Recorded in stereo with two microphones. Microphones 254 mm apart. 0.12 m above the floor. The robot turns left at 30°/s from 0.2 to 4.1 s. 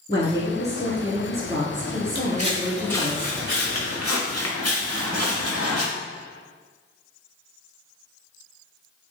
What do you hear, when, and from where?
0.1 s a woman speaking: 35° left, 1.3 m; by 3.1 s 55° right, 1.3 m
2.1 s footsteps: 45° right (ahead or behind), 0.7 m; by 5.8 s 65° left (ahead or behind), 1.6 m